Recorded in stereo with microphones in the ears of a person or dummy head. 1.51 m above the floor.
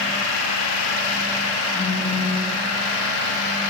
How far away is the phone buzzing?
About 4.5 m.